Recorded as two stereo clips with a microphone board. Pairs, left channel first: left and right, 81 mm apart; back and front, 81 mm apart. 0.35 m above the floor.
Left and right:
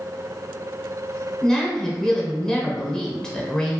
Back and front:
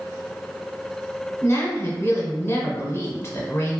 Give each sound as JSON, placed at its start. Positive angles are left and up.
{"t": 1.4, "sound": "a woman speaking", "azimuth_deg": 170, "distance_m": 0.9}